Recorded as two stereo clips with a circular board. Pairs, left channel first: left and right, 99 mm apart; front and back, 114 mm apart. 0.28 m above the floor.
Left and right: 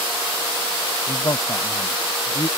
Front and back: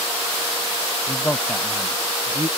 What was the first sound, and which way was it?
A man speaking, 50° left.